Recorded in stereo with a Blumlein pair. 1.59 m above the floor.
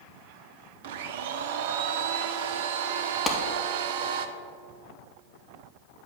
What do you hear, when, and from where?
0.8 s a blender: 55° right, 0.6 m
3.3 s a clap: 15° left, 1.1 m